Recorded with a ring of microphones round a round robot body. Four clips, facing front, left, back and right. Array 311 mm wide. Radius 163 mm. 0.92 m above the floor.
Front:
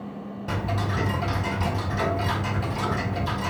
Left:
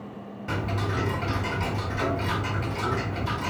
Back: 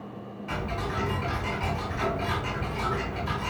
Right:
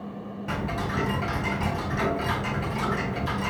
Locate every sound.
0.5 s ticking: 20° left, 4.5 m